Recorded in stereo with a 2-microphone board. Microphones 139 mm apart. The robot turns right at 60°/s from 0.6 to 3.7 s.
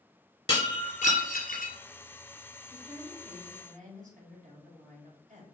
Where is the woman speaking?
150° right, 1.8 m; by 5.5 s 90° right, 1.8 m.